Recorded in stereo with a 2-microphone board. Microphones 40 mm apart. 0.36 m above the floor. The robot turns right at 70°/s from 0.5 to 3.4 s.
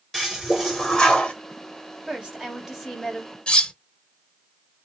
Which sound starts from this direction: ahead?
A toilet flushing, at 0.1 s.